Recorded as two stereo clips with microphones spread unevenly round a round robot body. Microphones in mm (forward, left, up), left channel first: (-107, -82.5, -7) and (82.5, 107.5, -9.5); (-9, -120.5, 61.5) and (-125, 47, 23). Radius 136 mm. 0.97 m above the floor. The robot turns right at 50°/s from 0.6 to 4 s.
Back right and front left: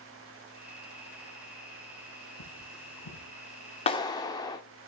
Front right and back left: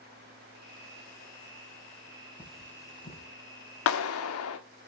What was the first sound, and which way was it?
Cutlery clinking, 155° right.